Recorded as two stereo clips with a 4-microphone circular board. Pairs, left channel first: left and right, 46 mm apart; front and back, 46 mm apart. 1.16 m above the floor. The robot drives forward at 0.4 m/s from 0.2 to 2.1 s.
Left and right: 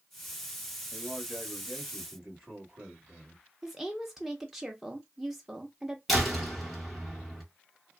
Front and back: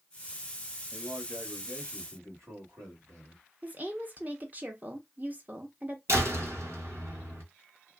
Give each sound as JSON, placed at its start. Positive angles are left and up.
{"t": 0.9, "sound": "a man speaking", "azimuth_deg": -150, "distance_m": 1.3}
{"t": 3.6, "sound": "a woman speaking", "azimuth_deg": -170, "distance_m": 0.6}
{"t": 6.1, "sound": "a door slam", "azimuth_deg": 180, "distance_m": 1.0}